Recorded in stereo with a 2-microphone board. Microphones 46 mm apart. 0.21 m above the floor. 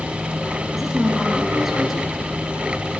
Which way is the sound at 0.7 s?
5° right (ahead or behind).